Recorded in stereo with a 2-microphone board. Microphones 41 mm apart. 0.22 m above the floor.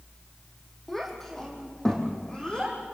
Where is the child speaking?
5° left (ahead or behind), 5 m; by 2.8 s 25° left (ahead or behind), 6.5 m.